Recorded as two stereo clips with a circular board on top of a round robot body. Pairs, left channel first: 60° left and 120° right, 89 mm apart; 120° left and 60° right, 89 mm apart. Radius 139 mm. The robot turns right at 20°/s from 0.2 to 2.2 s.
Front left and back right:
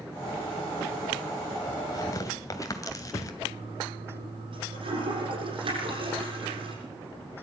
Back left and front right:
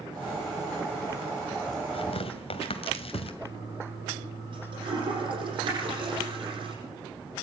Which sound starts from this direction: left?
Tearing paper, at 1.9 s.